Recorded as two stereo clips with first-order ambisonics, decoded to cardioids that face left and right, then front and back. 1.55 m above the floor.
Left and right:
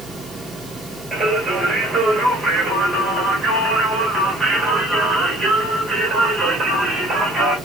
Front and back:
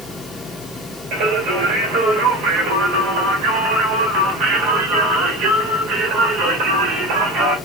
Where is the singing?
170° right, 1.4 m.